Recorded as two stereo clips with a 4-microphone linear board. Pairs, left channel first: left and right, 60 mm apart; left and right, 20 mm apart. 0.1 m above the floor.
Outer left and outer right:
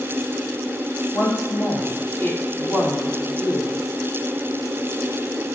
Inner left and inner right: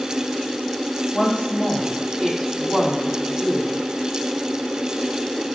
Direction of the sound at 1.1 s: 30° left (ahead or behind).